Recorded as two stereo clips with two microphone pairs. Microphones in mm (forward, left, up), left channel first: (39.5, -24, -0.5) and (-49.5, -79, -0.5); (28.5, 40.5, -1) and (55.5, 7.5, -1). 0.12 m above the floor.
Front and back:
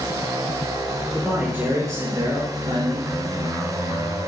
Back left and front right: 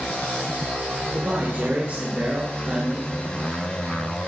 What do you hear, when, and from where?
1.1 s a man speaking: 70° right, 2.5 m; by 3.1 s 125° right, 3.5 m